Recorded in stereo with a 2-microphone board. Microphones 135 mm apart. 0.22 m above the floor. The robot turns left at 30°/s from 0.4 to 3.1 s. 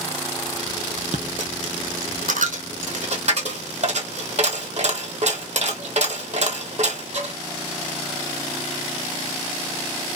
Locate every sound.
1.1 s a dropped coin: 60° right (ahead or behind), 0.6 m